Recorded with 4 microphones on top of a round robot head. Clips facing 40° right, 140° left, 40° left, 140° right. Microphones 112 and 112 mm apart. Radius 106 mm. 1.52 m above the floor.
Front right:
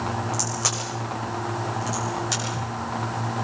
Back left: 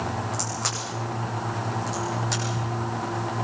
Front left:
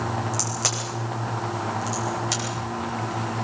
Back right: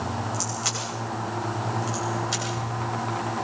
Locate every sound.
0.3 s a crack: 45° left, 9 m